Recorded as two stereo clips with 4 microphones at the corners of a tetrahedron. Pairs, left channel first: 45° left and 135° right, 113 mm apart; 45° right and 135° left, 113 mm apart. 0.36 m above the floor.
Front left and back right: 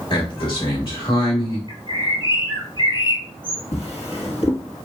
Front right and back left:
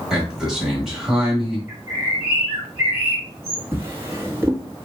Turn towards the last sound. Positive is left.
turn(degrees=65)